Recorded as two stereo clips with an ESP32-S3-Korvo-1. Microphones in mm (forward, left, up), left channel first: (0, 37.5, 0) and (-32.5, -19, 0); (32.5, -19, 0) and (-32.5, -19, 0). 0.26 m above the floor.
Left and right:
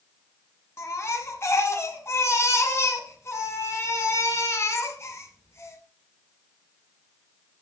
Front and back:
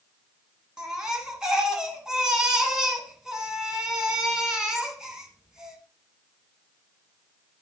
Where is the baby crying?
100° left, 1.9 m.